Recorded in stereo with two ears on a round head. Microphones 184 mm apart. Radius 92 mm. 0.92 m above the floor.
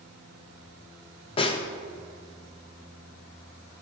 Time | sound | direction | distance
1.4 | a snare drum | 25° left (ahead or behind) | 0.5 m